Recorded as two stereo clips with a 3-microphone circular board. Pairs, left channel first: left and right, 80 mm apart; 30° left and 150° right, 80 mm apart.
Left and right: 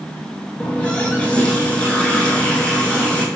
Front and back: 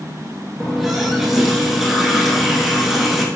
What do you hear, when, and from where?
0.6 s a running tap: 135° left, 0.8 m